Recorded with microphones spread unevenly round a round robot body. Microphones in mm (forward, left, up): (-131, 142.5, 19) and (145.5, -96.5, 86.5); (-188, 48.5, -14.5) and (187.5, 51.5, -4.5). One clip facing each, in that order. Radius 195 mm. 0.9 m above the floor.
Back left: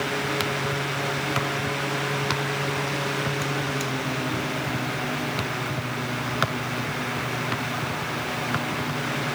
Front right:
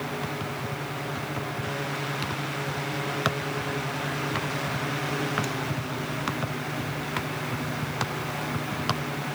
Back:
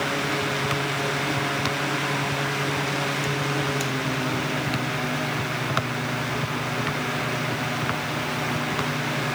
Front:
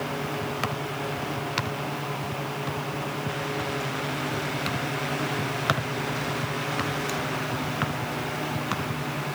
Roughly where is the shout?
No shout in this recording.